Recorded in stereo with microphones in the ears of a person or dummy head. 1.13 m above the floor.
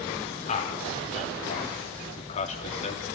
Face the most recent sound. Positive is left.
turn(degrees=35)  # may be behind; listen again after turning